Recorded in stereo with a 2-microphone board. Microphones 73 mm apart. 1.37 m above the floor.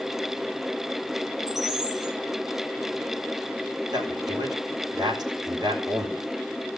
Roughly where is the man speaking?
Right.